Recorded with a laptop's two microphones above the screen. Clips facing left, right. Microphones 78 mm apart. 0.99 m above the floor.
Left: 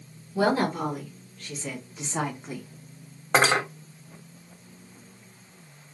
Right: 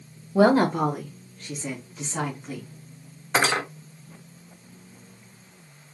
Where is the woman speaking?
75° right (ahead or behind), 0.7 m; by 2.6 s 25° left (ahead or behind), 0.9 m.